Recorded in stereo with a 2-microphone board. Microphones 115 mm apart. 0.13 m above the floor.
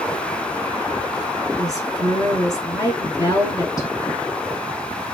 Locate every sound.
1.6 s a woman speaking: 30° left (ahead or behind), 1.2 m